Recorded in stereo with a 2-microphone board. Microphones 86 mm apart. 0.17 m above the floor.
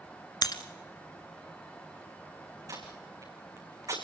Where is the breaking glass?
55° left (ahead or behind), 1.2 m.